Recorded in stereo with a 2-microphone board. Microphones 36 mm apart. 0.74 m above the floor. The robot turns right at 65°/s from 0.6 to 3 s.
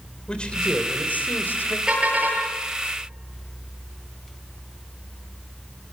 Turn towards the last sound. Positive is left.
turn(degrees=-80)